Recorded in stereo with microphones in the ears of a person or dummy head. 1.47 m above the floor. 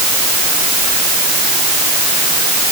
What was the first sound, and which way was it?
Only background noise.